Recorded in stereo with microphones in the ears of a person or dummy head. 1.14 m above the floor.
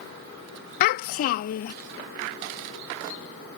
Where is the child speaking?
50° left (ahead or behind).